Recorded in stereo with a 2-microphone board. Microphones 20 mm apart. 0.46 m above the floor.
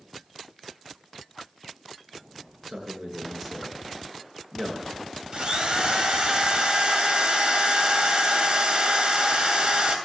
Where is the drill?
40° right (ahead or behind), 2.5 m.